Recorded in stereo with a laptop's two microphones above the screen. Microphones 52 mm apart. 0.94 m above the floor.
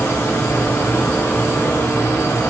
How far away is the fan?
About 0.7 m.